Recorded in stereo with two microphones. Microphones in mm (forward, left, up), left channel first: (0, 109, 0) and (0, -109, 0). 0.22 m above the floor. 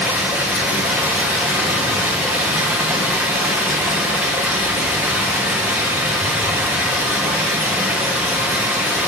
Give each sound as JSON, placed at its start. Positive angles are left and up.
{"t": 0.0, "sound": "running water", "side_deg": -5, "distance_m": 1.7}